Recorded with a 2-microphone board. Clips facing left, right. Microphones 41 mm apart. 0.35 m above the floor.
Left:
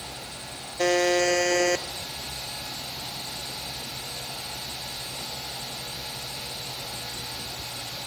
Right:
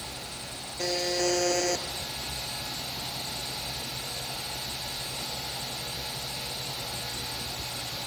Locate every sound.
0.8 s a buzzer: 60° left (ahead or behind), 1.4 m